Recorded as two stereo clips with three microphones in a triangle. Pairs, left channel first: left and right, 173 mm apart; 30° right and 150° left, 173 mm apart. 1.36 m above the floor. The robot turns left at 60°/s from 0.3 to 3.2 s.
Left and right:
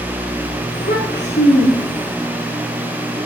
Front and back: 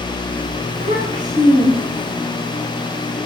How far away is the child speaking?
About 2.5 m.